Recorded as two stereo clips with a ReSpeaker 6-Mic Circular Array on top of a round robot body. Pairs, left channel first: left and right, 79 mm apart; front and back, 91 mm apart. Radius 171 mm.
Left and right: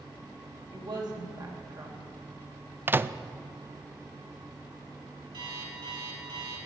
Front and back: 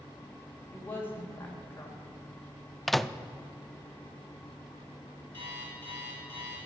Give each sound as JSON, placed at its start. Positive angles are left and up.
{"t": 0.7, "sound": "a woman speaking", "azimuth_deg": -65, "distance_m": 3.0}
{"t": 2.9, "sound": "a microwave", "azimuth_deg": -85, "distance_m": 0.6}
{"t": 5.3, "sound": "an alarm clock", "azimuth_deg": -65, "distance_m": 4.5}